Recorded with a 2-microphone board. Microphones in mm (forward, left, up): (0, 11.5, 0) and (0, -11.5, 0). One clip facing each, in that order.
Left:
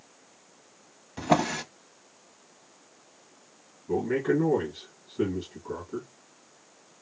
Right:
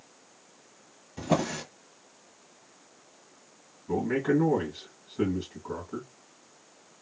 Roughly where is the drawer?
Left.